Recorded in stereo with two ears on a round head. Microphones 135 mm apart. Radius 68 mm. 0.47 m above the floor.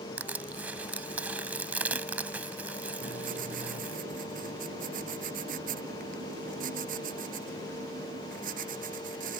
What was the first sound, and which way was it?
Crushing, 10° right (ahead or behind).